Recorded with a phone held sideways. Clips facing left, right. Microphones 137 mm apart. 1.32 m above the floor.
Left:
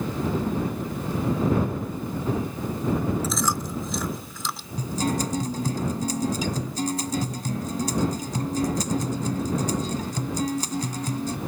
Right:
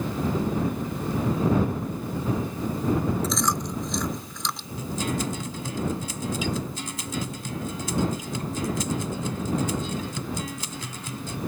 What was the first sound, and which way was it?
Chewing, 5° left (ahead or behind).